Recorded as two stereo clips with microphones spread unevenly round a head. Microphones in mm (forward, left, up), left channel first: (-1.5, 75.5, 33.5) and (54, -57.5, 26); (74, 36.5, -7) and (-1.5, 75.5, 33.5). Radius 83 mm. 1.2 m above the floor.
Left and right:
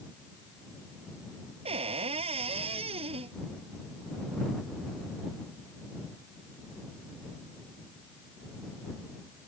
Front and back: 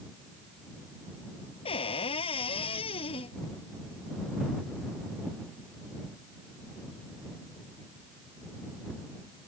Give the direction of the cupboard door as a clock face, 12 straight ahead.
1 o'clock.